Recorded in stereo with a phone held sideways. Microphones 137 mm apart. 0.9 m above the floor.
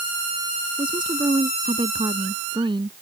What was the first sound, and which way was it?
A woman speaking, 35° right (ahead or behind).